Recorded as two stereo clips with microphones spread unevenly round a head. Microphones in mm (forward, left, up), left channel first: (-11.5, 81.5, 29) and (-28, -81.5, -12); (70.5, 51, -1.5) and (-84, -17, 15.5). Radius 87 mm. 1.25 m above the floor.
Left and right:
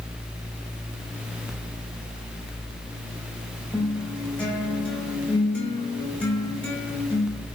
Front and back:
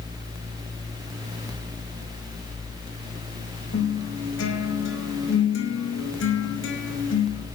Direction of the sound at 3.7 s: Straight ahead.